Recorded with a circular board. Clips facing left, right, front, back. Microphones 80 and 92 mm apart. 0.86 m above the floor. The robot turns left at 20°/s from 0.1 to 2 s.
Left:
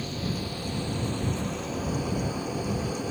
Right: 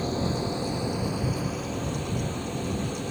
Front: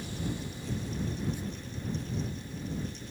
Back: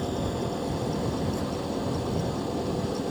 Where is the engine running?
150° right; by 3.1 s 175° left.